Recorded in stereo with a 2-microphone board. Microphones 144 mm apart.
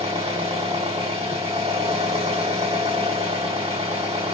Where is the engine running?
45° right (ahead or behind), 1.6 m.